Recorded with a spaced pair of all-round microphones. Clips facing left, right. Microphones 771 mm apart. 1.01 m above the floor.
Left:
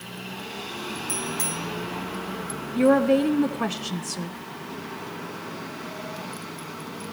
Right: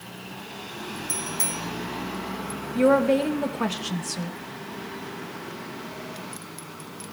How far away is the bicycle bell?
About 3 m.